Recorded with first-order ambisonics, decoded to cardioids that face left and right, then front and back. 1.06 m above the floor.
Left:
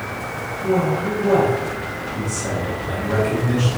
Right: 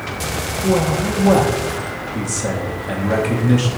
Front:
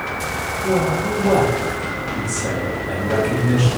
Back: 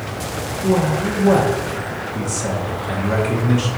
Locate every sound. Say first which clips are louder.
0.6 s a man speaking: right 1 dB, back 1 dB; 110° right, 0.9 m